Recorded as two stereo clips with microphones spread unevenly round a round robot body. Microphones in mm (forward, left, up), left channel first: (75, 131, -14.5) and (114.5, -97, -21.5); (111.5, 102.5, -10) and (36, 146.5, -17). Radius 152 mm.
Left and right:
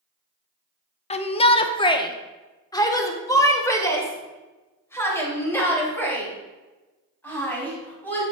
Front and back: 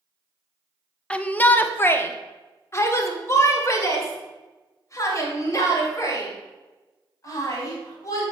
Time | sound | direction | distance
1.1 | a shout | 45° left | 0.9 m